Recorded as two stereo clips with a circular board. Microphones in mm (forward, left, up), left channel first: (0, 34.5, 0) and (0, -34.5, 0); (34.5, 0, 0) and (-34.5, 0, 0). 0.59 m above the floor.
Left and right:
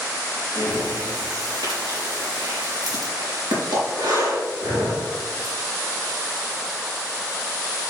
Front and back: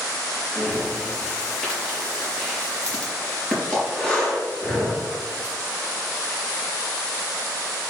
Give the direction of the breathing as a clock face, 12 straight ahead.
2 o'clock.